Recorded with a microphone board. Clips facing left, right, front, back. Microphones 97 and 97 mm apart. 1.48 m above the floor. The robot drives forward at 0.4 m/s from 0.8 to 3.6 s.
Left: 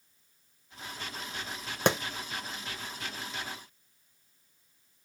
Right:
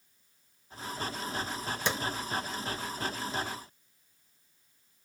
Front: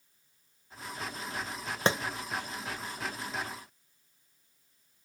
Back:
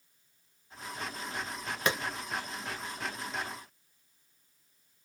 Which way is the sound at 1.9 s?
60° left.